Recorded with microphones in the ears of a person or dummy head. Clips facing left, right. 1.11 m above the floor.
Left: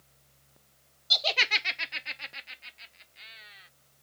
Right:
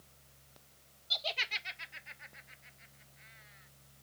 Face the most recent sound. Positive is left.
turn(degrees=85)